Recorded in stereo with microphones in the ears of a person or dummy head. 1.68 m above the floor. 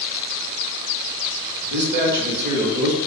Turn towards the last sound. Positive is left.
turn(degrees=-65)  # may be behind; listen again after turning